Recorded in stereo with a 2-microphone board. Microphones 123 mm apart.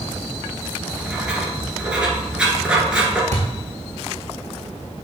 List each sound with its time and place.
0.8 s writing: 5° right (ahead or behind), 1.7 m
3.3 s a thud: 75° right (ahead or behind), 2 m